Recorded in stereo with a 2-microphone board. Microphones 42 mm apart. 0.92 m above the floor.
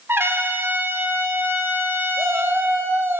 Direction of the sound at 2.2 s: 70° right (ahead or behind).